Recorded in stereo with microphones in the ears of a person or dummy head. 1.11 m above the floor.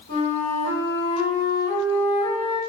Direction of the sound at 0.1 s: 45° left (ahead or behind).